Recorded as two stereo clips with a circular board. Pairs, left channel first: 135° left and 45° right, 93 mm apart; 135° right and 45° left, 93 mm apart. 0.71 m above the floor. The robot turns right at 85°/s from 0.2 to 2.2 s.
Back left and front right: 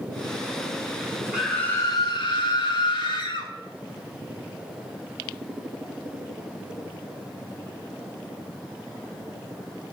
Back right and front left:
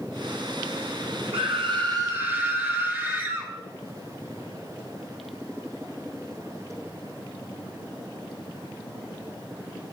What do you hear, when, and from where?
1.3 s a scream: 35° left, 3 m; by 3.5 s 110° left, 3 m